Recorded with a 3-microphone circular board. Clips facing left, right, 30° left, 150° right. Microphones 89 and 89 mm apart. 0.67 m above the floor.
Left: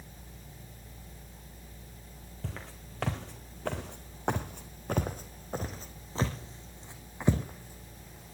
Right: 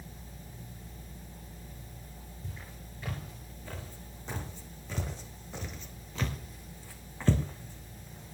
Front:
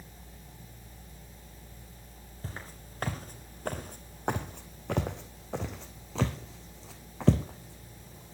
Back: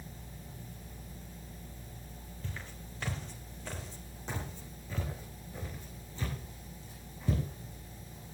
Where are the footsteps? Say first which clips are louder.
Left 6 dB, front 2 dB; 85° left, 3.5 m; by 8.3 s 5° left, 3.5 m.